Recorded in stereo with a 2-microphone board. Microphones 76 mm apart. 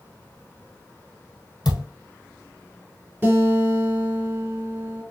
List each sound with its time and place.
1.6 s a thud: 65° left (ahead or behind), 1.4 m
3.2 s a guitar: 25° right (ahead or behind), 2.5 m